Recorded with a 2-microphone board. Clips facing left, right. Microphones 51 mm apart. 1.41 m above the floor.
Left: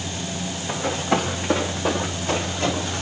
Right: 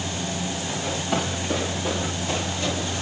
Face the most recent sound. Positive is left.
turn(degrees=45)  # may be behind; listen again after turning